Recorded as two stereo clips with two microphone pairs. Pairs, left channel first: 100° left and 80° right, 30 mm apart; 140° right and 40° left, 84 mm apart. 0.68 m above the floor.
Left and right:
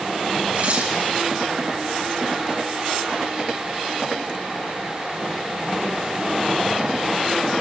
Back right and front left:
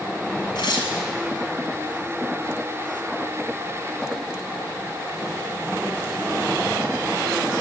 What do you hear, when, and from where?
0.6 s tearing paper: 110° right, 5.5 m